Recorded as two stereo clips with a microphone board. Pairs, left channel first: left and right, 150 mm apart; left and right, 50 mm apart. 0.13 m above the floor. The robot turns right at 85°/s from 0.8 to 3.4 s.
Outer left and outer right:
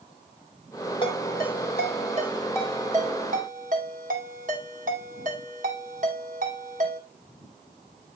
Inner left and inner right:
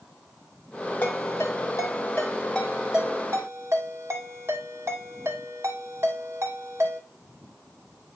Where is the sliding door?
I don't hear a sliding door.